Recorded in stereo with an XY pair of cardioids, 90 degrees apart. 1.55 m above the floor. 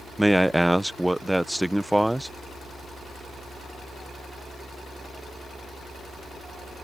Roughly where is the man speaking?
Ahead.